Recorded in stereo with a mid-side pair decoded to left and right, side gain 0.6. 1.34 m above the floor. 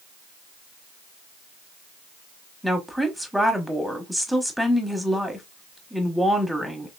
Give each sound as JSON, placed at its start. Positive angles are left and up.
{"t": 2.6, "sound": "a woman speaking", "azimuth_deg": 0, "distance_m": 1.2}